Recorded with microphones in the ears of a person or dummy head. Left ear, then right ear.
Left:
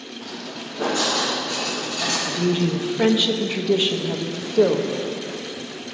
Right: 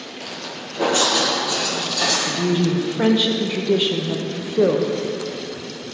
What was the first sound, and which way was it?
Footsteps, 30° right (ahead or behind).